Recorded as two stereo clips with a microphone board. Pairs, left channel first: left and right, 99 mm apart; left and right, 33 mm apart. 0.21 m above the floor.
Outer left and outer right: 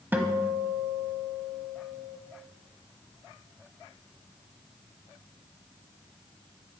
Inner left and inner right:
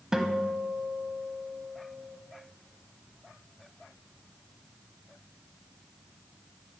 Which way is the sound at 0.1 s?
20° right (ahead or behind).